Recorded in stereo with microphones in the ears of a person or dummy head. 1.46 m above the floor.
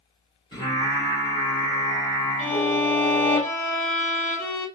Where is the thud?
I don't hear a thud.